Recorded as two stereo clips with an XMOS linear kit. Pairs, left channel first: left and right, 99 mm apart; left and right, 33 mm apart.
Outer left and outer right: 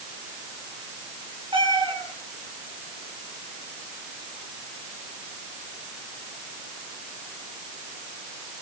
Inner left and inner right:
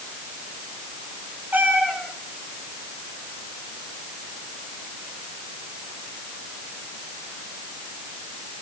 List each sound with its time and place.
1.5 s a cat meowing: 55° right (ahead or behind), 5.5 m